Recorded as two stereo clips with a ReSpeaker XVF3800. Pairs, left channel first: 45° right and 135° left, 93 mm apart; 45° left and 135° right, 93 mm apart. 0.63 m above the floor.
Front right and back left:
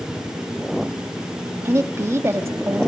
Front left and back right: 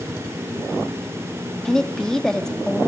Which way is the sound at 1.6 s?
120° left.